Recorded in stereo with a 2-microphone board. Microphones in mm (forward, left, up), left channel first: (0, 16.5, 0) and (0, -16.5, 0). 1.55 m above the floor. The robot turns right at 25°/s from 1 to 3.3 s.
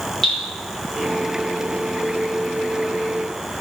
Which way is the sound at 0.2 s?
15° left (ahead or behind).